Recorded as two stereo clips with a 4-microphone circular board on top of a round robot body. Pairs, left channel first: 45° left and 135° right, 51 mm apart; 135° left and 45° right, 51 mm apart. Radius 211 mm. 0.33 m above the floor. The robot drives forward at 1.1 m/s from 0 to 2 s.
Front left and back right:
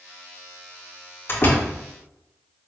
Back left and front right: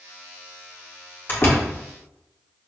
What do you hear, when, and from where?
1.3 s a door slam: 90° left, 2.5 m; by 1.7 s 100° left, 2.5 m